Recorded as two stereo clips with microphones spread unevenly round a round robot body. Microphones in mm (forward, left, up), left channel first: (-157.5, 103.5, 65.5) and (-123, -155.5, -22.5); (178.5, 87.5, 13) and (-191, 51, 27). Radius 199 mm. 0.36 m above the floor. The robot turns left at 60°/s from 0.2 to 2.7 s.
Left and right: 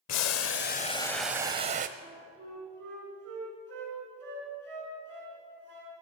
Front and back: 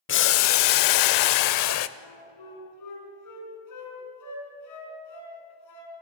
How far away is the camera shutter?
I don't hear a camera shutter.